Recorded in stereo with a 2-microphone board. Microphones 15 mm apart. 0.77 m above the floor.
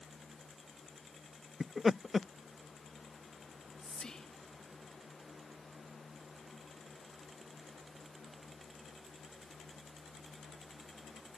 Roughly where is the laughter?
Centre.